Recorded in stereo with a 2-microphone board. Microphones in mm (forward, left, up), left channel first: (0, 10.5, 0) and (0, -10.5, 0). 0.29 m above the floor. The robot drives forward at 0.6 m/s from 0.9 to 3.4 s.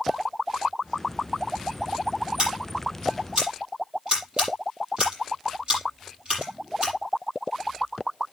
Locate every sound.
2.4 s scissors: 50° right (ahead or behind), 7.5 m